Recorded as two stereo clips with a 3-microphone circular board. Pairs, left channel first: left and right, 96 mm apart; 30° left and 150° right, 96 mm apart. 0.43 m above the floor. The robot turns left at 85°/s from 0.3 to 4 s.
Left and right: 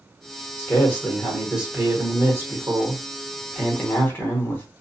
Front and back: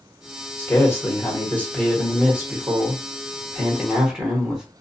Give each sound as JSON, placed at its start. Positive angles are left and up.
{"t": 0.6, "sound": "a man speaking", "azimuth_deg": 65, "distance_m": 1.1}